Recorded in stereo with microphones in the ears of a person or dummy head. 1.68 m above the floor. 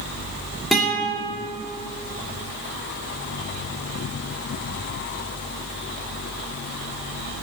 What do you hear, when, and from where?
0.7 s a guitar: 5° left (ahead or behind), 1.7 m